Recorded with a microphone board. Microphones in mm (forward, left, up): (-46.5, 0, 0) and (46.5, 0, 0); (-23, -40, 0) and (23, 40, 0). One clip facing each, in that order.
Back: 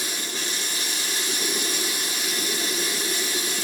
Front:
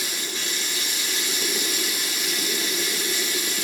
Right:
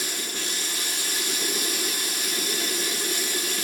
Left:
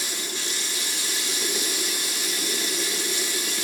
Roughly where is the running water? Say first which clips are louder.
Even, even; behind right.